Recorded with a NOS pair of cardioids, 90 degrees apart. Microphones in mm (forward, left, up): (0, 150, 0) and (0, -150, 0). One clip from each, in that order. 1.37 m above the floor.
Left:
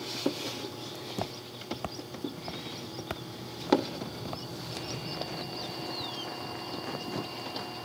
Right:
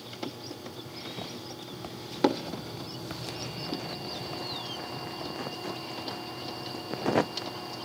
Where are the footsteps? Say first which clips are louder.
Left 1 dB; 60° left; by 5.3 s 30° left.